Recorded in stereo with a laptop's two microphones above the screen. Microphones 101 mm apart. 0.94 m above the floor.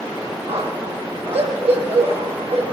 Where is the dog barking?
70° right (ahead or behind), 8.5 m; by 2.7 s 80° right, 6.5 m.